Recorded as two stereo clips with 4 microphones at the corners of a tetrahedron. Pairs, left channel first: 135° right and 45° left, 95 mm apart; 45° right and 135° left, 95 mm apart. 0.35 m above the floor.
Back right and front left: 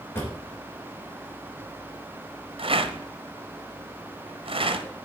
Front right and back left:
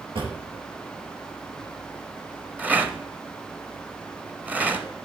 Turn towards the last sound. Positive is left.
turn(degrees=60)